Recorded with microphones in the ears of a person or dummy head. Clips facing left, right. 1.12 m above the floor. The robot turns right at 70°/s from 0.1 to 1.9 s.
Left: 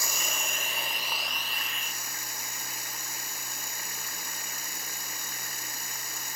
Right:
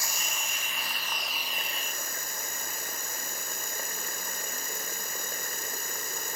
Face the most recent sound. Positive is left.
turn(degrees=-135)